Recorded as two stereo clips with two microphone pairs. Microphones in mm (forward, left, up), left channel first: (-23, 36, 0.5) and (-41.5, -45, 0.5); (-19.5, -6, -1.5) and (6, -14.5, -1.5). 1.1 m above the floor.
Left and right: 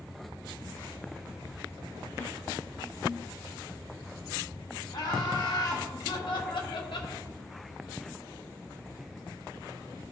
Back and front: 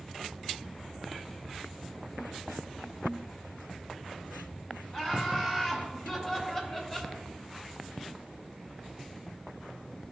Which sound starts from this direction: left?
Laughter, at 4.9 s.